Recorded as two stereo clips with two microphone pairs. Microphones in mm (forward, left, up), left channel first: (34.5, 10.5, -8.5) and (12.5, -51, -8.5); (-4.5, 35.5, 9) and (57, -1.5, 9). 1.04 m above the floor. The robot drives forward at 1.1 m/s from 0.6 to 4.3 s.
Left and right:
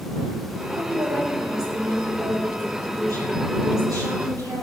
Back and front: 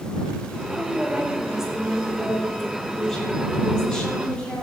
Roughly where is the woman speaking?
Right.